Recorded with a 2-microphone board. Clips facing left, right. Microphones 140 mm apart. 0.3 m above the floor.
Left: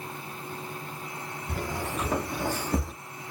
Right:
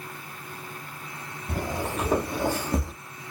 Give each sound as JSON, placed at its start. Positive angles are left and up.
{"t": 1.5, "sound": "footsteps", "side_deg": -45, "distance_m": 1.2}